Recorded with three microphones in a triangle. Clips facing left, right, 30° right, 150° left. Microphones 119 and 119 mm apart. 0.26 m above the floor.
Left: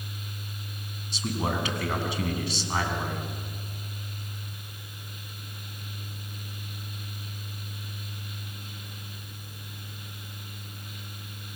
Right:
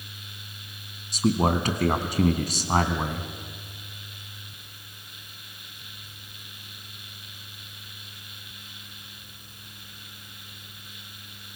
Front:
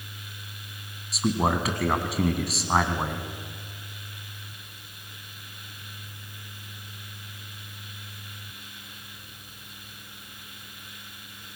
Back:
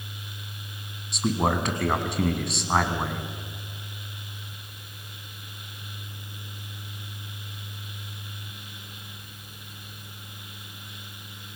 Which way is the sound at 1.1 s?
120° right.